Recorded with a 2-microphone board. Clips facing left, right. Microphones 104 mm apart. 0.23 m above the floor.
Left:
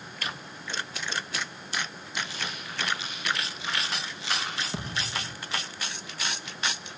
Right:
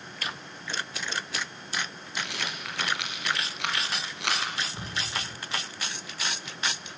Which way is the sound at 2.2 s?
70° right (ahead or behind).